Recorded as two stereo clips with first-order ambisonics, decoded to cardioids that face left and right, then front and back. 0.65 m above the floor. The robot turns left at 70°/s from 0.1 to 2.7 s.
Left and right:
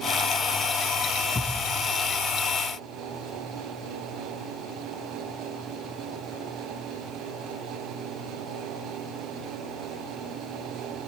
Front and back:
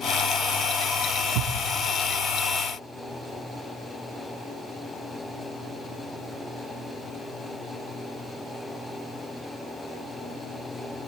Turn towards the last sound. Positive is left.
turn(degrees=75)